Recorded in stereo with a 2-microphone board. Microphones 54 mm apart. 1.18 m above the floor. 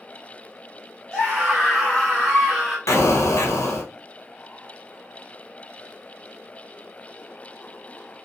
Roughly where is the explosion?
Left.